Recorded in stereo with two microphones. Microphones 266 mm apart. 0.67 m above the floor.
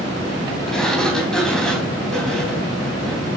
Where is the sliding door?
Centre (ahead or behind), 3 m.